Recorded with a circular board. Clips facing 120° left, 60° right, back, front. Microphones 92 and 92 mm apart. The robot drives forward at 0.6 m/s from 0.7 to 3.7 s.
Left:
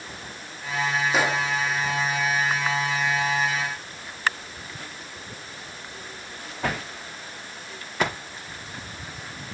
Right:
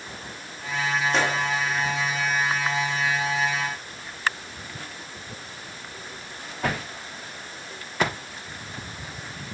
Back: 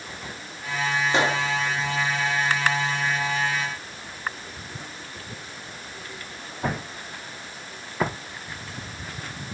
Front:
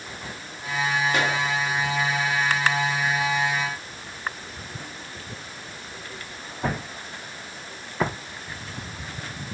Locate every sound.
1.1 s a gunshot: 165° right, 0.9 m; by 1.4 s 170° right, 1.0 m